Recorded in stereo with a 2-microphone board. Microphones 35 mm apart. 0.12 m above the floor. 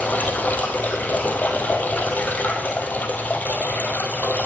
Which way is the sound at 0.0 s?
55° left (ahead or behind).